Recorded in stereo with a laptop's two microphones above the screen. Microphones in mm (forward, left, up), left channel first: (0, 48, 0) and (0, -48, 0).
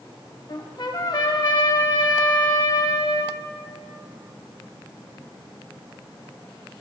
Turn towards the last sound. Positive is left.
turn(degrees=50)  # may be behind; listen again after turning